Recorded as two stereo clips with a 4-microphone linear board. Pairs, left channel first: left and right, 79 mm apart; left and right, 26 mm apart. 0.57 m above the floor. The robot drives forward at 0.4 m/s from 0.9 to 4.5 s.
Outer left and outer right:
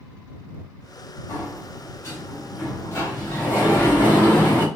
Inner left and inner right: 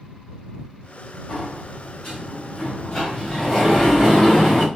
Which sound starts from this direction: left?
A sliding door, at 1.3 s.